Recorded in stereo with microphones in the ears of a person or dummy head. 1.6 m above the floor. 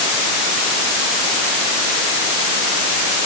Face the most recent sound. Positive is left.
No sound to turn to.